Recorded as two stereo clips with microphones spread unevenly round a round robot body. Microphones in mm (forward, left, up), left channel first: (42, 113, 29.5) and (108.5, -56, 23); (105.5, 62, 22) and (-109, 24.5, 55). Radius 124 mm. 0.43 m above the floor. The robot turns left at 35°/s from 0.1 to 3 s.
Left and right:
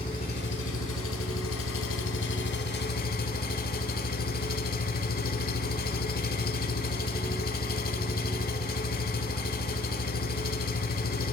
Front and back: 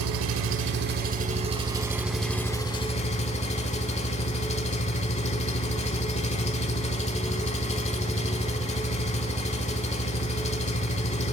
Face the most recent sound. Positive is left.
turn(degrees=70)